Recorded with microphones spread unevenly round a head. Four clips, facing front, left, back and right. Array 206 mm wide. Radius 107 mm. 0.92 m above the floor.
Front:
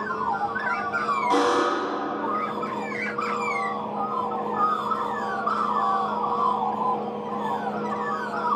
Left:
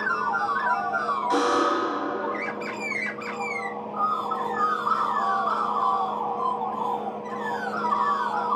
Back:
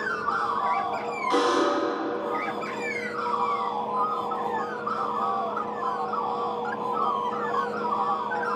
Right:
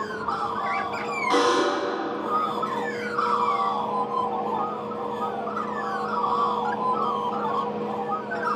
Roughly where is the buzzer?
Ahead right.